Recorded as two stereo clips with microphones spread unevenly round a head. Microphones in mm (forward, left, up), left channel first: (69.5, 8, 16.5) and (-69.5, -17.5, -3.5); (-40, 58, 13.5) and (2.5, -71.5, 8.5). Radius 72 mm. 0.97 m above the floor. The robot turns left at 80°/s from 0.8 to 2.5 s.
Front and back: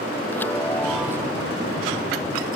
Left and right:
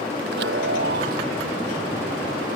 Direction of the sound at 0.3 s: 65° right.